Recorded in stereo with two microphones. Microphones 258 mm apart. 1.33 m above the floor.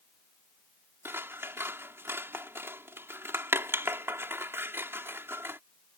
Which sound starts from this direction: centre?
Scissors, at 1.1 s.